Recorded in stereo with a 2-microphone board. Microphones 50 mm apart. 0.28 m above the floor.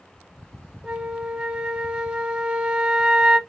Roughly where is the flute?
Right.